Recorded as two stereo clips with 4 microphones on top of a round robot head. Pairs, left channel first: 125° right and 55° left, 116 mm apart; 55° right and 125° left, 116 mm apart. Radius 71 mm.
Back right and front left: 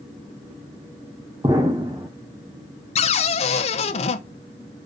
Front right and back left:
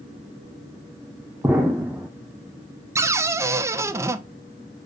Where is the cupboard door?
165° right, 0.7 m.